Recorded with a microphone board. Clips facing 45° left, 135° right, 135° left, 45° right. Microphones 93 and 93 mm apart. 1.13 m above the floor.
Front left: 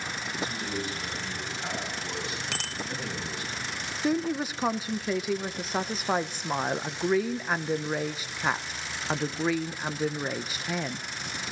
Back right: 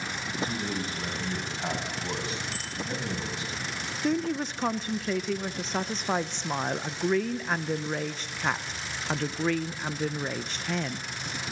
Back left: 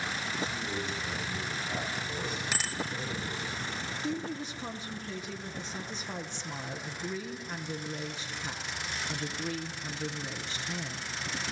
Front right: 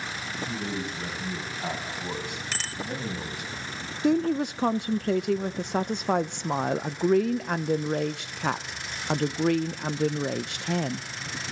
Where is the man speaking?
85° right, 9.5 m; by 3.5 s 65° right, 8.5 m.